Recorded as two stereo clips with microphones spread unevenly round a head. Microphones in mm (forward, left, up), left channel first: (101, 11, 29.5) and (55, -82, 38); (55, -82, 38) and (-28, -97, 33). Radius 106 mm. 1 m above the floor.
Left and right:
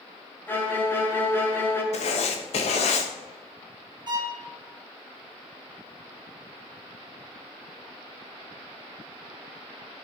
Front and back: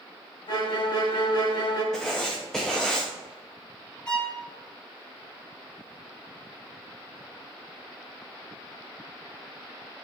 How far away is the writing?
About 0.6 m.